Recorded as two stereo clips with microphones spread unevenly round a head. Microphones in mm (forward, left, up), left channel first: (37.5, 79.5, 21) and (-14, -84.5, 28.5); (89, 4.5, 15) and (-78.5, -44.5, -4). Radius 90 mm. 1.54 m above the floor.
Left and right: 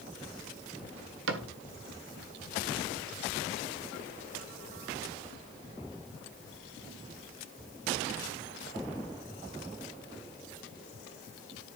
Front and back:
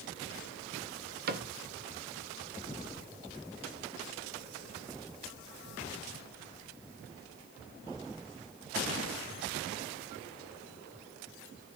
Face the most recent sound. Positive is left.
turn(degrees=-130)